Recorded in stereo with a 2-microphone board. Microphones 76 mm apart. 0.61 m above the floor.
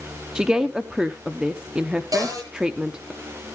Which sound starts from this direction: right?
A cupboard door, at 2.1 s.